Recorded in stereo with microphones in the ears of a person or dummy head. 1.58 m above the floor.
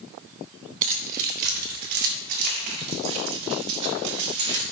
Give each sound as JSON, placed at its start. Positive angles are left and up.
{"t": 0.8, "sound": "keys jangling", "side_deg": -45, "distance_m": 1.1}